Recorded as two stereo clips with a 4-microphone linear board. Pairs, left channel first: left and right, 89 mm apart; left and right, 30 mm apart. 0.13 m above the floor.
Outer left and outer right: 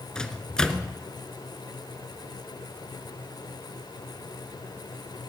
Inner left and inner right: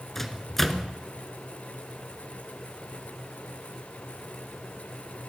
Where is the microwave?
10° left (ahead or behind), 1.1 m.